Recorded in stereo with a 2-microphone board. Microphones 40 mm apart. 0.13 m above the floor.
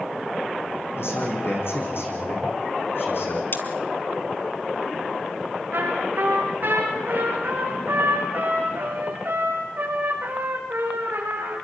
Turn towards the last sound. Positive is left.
turn(degrees=-50)  # may be behind; listen again after turning